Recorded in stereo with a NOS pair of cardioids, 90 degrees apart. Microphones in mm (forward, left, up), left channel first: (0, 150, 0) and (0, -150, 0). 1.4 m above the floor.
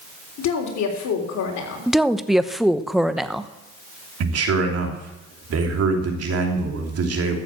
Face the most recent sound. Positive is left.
turn(degrees=-55)